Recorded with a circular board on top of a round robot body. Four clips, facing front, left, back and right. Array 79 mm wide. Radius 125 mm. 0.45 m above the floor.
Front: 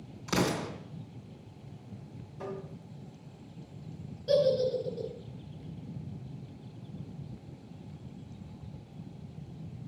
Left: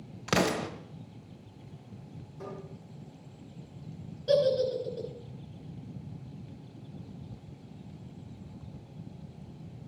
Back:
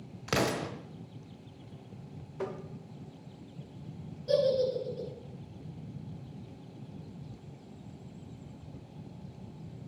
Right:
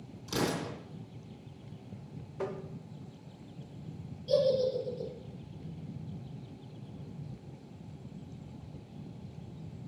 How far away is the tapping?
About 1.9 m.